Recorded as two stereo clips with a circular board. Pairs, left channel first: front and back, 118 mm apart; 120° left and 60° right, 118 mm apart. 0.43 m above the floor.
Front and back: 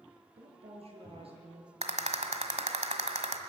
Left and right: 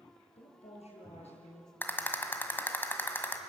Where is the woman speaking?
145° left, 6.5 m.